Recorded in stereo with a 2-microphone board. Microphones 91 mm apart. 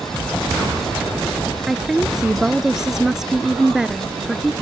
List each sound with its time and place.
1.7 s a woman speaking: 5° right (ahead or behind)